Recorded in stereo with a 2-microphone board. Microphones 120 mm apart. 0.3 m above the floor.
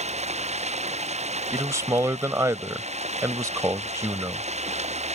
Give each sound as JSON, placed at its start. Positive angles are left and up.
{"t": 0.0, "sound": "running water", "side_deg": -70}
{"t": 1.5, "sound": "a man speaking", "side_deg": -25}